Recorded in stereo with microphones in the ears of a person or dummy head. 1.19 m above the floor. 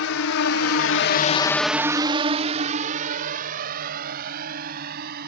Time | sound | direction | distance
0.0 | a drone | 75° left (ahead or behind) | ?